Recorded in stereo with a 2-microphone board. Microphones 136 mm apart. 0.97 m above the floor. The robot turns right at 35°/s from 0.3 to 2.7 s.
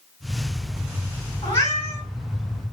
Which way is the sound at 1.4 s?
55° left (ahead or behind).